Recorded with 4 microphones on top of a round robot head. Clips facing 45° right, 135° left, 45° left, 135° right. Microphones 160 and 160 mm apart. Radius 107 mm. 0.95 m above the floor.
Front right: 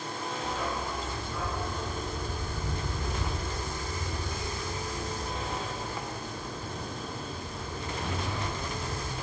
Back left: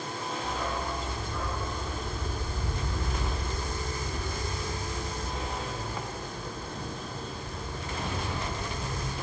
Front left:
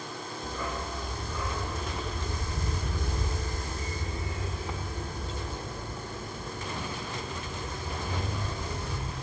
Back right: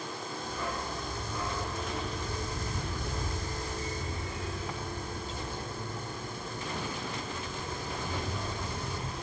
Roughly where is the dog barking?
Ahead left.